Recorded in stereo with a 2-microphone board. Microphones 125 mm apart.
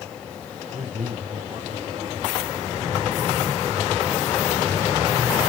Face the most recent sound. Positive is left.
turn(degrees=-65)  # may be behind; listen again after turning